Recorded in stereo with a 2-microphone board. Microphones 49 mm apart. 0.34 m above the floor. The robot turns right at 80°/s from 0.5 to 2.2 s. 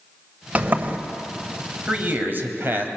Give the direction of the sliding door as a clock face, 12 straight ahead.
4 o'clock.